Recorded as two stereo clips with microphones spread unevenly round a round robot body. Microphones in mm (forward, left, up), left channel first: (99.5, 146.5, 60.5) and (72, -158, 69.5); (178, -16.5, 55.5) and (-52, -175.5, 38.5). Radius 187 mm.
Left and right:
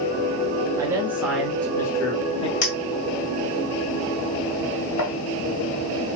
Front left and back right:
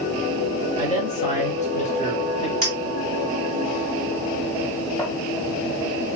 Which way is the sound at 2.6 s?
115° left.